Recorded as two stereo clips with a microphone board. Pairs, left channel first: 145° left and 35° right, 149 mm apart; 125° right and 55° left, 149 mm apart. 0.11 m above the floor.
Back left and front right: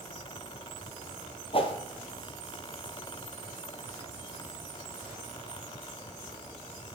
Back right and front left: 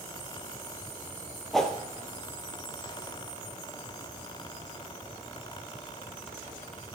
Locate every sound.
1.5 s a whoosh: 150° left, 1.2 m